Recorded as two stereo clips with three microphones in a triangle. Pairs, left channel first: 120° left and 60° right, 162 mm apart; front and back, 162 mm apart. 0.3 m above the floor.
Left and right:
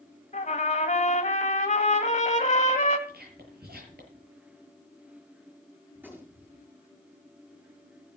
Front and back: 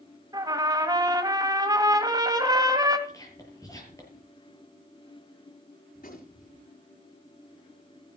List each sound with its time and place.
0.3 s a trumpet: 125° left, 1.8 m
3.1 s whispering: 70° right, 7 m
6.0 s a gunshot: 15° left, 5.5 m